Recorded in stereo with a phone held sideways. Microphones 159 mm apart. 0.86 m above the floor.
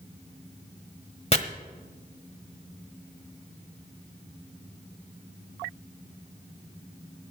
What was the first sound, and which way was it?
Chopping, 40° left (ahead or behind).